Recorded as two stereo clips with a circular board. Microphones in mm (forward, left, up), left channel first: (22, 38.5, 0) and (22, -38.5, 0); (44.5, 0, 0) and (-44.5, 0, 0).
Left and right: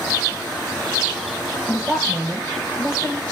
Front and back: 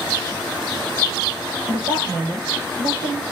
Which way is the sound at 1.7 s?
160° right.